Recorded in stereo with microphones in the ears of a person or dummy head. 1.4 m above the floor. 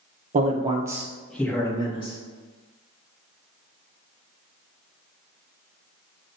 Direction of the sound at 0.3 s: 35° right (ahead or behind).